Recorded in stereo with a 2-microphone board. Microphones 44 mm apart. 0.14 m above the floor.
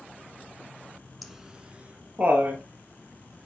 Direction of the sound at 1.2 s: Centre (ahead or behind).